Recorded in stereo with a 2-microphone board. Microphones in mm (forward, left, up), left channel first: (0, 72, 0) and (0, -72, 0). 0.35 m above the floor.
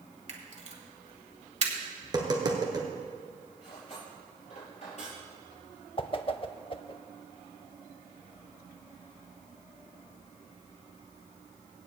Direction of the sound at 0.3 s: 50° right (ahead or behind).